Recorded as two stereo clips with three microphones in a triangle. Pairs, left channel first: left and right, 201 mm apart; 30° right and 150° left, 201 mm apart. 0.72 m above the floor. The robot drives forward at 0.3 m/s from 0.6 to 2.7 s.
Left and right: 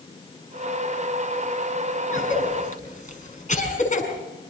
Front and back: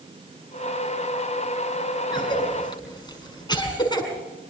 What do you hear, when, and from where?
2.1 s a cough: 35° left, 6.5 m; by 4.1 s 40° left, 6 m